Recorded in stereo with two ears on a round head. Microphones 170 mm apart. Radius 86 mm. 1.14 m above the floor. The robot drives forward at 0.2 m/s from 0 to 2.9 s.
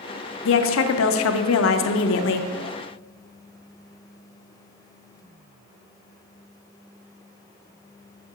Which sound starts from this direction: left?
A woman speaking, at 0.5 s.